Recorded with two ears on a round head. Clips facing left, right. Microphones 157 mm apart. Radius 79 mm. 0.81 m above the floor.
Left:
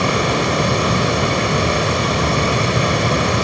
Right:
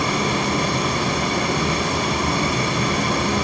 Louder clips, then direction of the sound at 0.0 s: Left 4 dB; 65° left (ahead or behind).